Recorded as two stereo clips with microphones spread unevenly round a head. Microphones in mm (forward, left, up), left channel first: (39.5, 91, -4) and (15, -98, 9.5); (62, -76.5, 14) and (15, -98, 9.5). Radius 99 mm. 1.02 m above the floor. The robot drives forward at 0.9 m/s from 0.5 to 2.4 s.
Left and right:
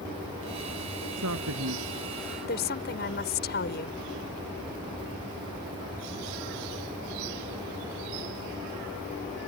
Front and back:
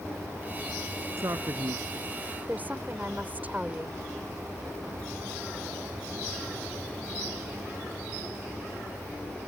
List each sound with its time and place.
1.2 s a man speaking: 120° right
2.5 s a woman speaking: 125° left